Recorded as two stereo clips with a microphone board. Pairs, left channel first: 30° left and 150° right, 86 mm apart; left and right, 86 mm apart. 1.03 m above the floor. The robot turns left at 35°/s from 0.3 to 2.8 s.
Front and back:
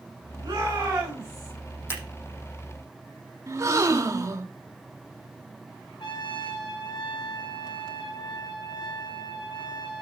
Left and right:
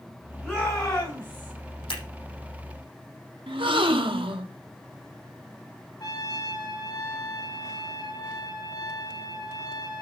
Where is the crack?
I don't hear a crack.